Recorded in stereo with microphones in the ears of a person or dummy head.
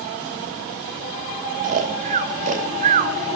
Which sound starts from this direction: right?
Snoring, at 1.6 s.